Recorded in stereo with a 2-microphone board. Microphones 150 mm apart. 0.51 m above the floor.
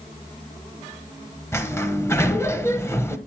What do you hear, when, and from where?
1.5 s a sliding door: 15° left (ahead or behind), 0.9 m